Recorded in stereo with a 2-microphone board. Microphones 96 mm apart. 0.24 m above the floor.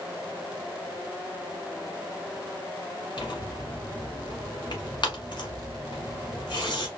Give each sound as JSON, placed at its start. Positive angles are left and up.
{"t": 3.2, "sound": "tearing paper", "side_deg": 55, "distance_m": 1.2}